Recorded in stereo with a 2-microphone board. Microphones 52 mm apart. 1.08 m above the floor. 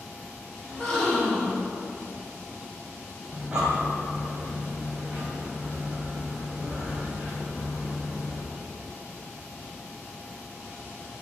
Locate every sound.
0.7 s a gasp: 5° left (ahead or behind), 4 m
3.3 s breathing: 20° right (ahead or behind), 3 m